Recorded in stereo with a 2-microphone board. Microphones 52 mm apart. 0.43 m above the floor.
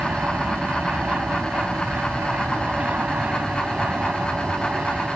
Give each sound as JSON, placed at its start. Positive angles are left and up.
{"t": 0.0, "sound": "an aircraft", "side_deg": -30}